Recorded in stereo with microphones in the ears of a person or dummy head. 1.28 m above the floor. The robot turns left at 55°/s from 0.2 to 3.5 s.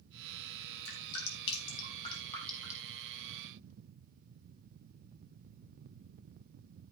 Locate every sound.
0.8 s dripping: 75° left (ahead or behind), 3 m; by 2.9 s 20° right (ahead or behind), 3 m